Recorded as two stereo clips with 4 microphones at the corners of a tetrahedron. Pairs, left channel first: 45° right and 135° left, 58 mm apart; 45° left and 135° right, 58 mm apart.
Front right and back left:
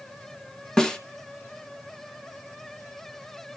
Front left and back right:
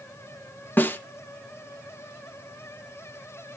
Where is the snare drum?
25° left, 1.1 m.